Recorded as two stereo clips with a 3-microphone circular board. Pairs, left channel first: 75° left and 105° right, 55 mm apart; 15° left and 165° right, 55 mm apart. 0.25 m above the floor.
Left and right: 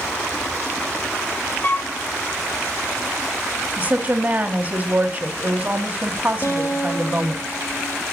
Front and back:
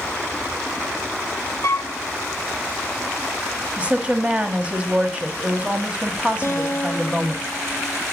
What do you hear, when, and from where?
1.6 s a flute: 25° left, 0.6 m
3.8 s a woman speaking: 120° right, 1.4 m
6.4 s a guitar: 55° left, 1.6 m